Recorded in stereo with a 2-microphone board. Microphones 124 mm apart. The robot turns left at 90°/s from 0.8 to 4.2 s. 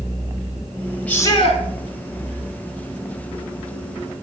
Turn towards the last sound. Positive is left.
turn(degrees=-115)